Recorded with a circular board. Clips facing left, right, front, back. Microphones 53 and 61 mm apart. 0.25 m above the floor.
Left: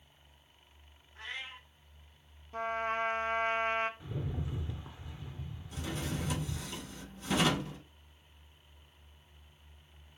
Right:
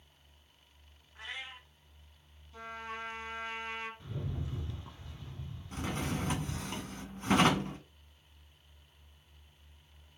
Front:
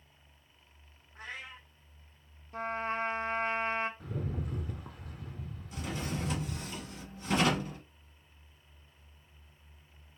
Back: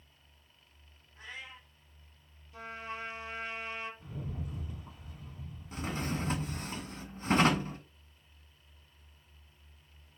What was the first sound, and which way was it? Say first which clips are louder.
A cat meowing: left 1 dB, front 2 dB; 15° right.